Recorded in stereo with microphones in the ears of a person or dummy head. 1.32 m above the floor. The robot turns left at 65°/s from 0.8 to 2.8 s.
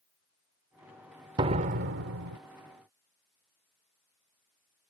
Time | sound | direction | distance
1.4 | a door slam | 25° right | ?